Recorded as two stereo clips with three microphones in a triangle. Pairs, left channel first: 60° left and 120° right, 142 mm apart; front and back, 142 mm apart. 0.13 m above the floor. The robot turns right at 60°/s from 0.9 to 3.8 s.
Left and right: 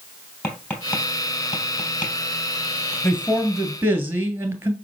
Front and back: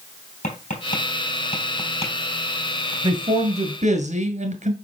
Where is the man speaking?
125° left, 1.9 m; by 4.7 s 170° left, 1.9 m.